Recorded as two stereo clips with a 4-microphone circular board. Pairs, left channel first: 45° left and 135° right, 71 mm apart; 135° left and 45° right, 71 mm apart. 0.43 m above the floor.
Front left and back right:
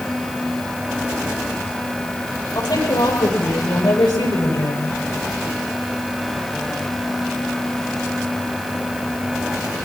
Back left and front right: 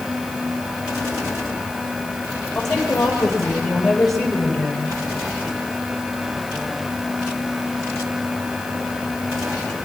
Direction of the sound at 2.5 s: 50° left.